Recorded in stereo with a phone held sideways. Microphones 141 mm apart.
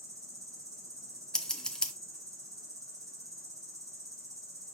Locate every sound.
0.0 s an insect: 20° right (ahead or behind), 1.4 m
1.3 s scissors: 5° left (ahead or behind), 0.7 m